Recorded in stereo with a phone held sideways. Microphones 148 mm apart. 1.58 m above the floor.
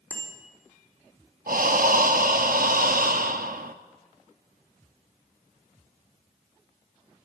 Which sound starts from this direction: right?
Breathing, at 1.5 s.